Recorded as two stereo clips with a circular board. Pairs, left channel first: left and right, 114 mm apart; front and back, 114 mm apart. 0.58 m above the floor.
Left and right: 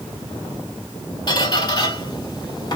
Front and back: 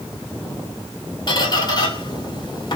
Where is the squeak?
45° left, 1.4 m.